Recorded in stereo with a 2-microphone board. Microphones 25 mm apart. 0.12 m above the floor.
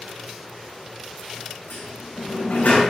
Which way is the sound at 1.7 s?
75° left (ahead or behind).